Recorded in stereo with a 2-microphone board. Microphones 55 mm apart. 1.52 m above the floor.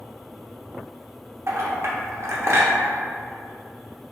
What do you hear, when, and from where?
1.5 s a clink: 50° right (ahead or behind), 0.6 m